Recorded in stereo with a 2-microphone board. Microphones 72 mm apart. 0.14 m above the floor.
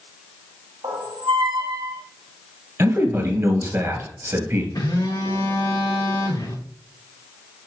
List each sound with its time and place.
0.8 s a squeak: 85° right, 1.2 m
2.8 s a man speaking: 35° right (ahead or behind), 2 m
4.8 s a phone buzzing: 65° left (ahead or behind), 3 m